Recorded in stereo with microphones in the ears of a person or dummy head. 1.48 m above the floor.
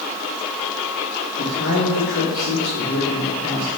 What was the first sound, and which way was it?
A man speaking, 70° left (ahead or behind).